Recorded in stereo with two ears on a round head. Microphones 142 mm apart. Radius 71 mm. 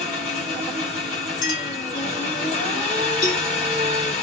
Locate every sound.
0.0 s an engine running: 45° left (ahead or behind), 2.0 m
1.4 s a clink: 50° left (ahead or behind), 1.6 m
3.2 s a cowbell: 70° left (ahead or behind), 2 m